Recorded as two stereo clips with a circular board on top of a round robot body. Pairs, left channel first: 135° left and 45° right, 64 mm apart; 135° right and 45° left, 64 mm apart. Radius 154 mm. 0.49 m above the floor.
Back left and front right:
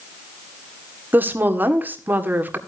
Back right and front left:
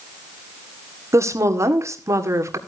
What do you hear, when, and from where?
1.1 s a woman speaking: 10° left, 2 m